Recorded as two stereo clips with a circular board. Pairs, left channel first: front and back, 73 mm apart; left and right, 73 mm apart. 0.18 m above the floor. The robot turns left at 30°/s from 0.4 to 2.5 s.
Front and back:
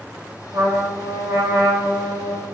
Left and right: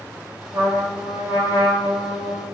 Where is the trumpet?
140° right, 1.2 m; by 2.5 s 165° left, 1.2 m.